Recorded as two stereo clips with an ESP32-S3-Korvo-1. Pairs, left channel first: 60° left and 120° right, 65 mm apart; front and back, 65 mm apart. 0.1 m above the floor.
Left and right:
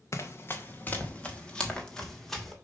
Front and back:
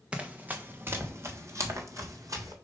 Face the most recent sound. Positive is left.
turn(degrees=150)